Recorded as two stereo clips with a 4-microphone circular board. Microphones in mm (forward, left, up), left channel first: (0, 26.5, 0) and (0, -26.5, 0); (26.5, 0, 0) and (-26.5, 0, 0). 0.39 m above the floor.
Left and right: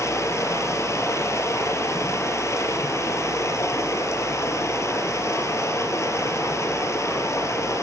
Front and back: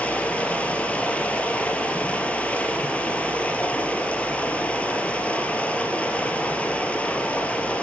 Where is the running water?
65° left, 3.5 m.